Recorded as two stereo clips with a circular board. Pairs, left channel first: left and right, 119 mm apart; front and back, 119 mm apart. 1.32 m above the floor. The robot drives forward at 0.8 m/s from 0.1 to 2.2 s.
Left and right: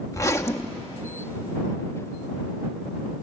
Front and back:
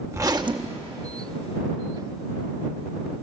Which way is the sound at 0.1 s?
130° left.